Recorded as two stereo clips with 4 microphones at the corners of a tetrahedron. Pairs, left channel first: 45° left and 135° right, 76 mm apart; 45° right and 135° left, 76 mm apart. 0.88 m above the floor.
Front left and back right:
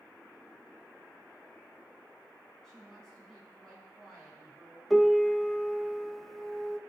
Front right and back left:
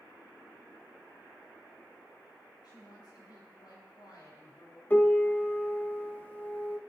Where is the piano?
40° right, 0.8 m.